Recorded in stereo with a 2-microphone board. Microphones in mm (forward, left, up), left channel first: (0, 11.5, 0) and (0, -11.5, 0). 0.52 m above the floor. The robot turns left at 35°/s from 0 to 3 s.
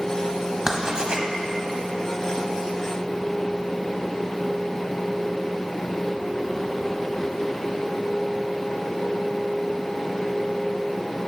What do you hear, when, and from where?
0.7 s writing: 20° right (ahead or behind), 0.9 m; by 1.2 s 40° right (ahead or behind), 0.9 m